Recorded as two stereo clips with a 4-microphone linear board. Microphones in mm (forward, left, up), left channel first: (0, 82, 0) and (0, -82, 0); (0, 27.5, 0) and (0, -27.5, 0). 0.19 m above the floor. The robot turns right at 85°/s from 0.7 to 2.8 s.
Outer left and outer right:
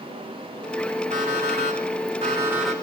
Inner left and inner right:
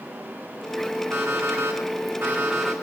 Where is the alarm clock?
135° right, 8 m; by 2.7 s 5° left, 8 m.